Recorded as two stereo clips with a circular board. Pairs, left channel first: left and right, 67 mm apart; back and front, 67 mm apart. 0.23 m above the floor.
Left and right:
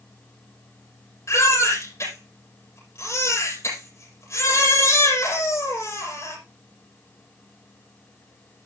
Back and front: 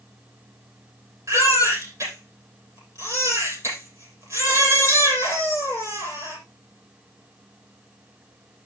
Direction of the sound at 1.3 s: 45° left.